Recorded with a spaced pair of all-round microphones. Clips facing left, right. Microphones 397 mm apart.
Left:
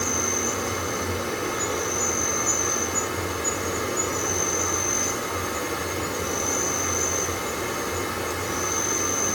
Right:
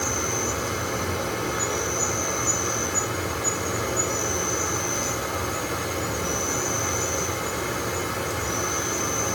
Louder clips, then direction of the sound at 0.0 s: Even; 5° left (ahead or behind).